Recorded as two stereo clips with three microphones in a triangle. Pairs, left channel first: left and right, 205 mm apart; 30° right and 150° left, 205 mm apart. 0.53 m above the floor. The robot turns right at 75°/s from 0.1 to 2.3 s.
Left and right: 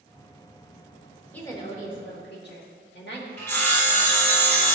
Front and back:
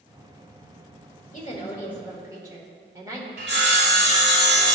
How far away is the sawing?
About 1.4 m.